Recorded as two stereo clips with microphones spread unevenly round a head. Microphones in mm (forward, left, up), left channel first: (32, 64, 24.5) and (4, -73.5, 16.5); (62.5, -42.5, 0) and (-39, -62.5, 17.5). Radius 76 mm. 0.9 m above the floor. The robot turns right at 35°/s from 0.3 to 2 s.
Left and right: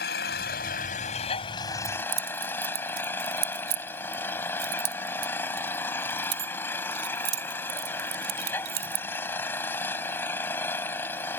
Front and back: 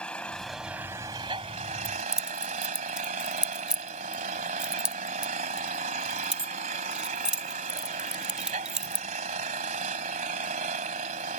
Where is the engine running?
95° left; by 11.4 s 155° left.